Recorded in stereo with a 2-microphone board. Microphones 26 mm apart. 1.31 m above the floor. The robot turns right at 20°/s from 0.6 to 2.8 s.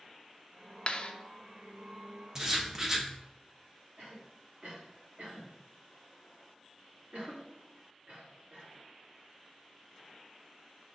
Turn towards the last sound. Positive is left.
turn(degrees=-80)